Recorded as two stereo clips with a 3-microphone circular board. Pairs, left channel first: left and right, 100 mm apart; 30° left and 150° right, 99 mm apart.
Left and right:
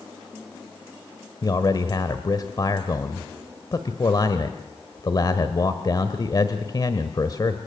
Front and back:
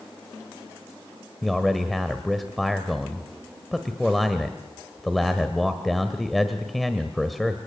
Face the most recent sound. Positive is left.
turn(degrees=120)